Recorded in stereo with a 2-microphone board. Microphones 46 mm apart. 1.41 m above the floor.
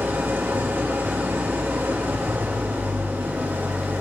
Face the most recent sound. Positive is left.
turn(degrees=-45)  # may be behind; listen again after turning